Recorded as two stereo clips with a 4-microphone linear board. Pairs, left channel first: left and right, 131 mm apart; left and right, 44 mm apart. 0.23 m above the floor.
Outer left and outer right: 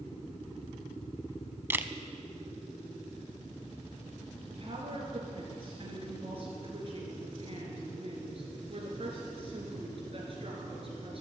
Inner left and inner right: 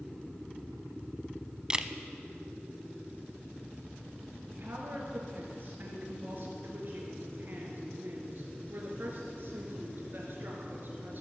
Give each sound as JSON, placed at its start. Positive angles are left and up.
{"t": 1.7, "sound": "a camera shutter", "side_deg": -15, "distance_m": 0.6}
{"t": 4.5, "sound": "a woman speaking", "side_deg": -45, "distance_m": 3.0}